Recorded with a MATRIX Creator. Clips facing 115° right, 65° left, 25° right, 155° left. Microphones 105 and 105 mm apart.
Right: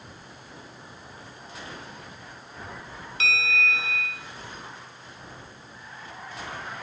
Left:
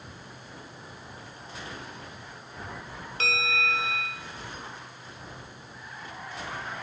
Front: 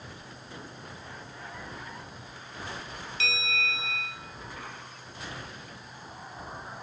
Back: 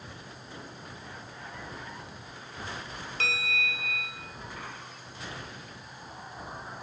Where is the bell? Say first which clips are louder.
Right 2 dB, even; 115° left, 0.8 m.